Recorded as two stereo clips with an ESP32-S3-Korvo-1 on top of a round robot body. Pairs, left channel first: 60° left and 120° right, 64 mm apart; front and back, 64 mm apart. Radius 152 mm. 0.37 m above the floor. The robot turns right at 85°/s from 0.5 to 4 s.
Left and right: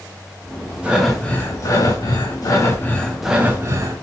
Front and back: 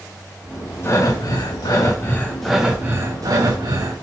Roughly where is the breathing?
Ahead right.